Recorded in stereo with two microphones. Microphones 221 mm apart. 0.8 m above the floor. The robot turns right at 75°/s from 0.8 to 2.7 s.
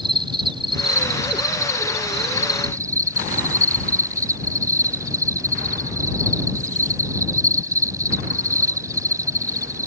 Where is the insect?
155° right; by 9.9 s 15° right.